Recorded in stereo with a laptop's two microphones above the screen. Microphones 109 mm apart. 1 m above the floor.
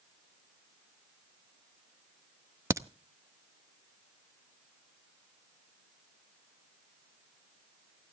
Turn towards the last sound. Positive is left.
turn(degrees=-30)  # may be behind; listen again after turning